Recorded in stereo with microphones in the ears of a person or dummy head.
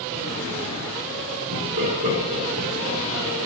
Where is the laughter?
65° right (ahead or behind), 3.5 m.